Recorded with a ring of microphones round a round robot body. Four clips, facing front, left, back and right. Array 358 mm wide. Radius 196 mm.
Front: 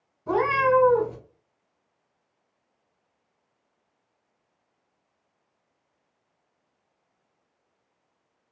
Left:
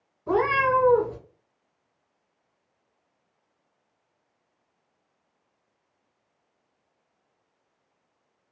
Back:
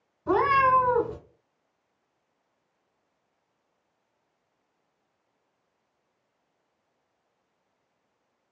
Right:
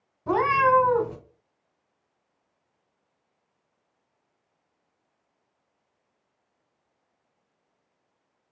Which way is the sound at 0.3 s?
105° right.